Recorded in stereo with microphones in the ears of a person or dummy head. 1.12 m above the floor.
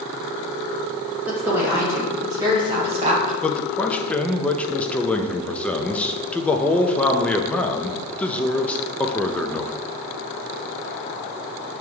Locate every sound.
1.3 s a woman speaking: 10° right (ahead or behind), 1.8 m; by 3.3 s 40° right (ahead or behind), 0.9 m
3.4 s a man speaking: 5° left (ahead or behind), 0.7 m